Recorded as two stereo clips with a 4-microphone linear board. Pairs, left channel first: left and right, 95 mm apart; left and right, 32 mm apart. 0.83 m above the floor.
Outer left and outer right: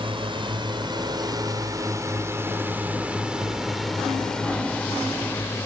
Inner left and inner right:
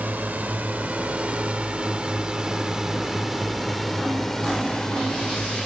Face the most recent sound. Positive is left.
turn(degrees=20)  # may be behind; listen again after turning